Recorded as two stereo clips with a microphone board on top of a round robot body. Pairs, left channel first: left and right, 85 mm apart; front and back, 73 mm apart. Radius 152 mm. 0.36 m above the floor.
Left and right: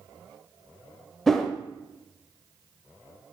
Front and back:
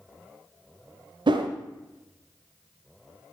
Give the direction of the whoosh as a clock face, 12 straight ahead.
6 o'clock.